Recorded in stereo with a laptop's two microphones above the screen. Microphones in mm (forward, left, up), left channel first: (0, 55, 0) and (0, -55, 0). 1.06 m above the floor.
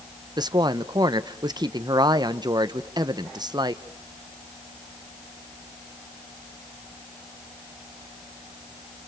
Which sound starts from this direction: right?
A woman speaking, at 0.4 s.